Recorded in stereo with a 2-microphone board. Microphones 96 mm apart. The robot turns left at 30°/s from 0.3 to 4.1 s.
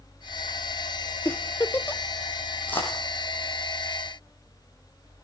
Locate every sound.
1.2 s a giggle: 25° left (ahead or behind), 0.6 m; by 2.0 s 20° left (ahead or behind), 0.6 m
2.7 s a dropped coin: 20° left (ahead or behind), 4 m; by 3.0 s 30° left (ahead or behind), 4 m